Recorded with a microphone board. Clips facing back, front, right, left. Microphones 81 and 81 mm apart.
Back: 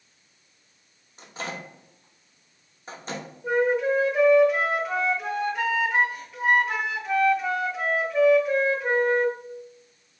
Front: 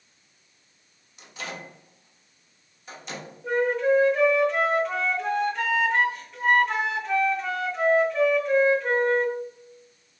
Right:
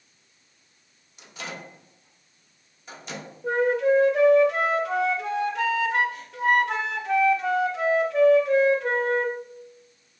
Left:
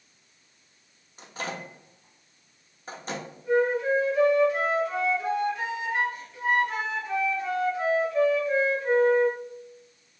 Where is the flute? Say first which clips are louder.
Even, right 2 dB; 95° right, 0.7 m.